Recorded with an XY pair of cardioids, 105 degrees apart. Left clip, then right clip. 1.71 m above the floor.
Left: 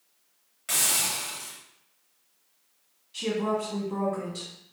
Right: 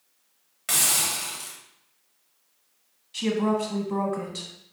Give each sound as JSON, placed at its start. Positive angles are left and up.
{"t": 0.7, "sound": "a hiss", "azimuth_deg": -40, "distance_m": 0.8}
{"t": 3.1, "sound": "a woman speaking", "azimuth_deg": -40, "distance_m": 1.0}